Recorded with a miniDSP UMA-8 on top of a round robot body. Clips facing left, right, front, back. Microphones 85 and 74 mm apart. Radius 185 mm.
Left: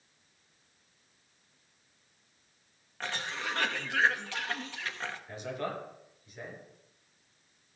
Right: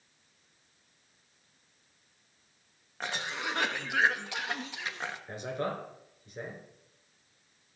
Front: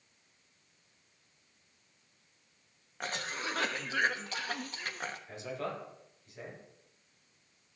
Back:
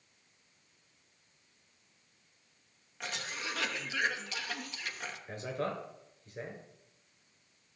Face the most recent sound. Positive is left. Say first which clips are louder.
# right 3 dB, back 5 dB
turn(degrees=-135)